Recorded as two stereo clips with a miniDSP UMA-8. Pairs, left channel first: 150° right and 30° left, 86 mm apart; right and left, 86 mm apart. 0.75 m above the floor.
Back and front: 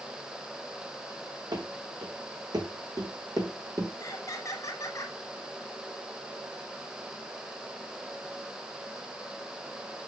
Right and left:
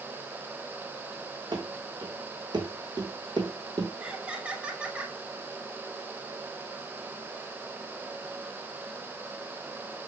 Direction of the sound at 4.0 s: 165° left.